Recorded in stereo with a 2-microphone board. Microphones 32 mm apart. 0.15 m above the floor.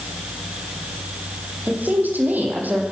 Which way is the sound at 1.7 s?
75° right (ahead or behind).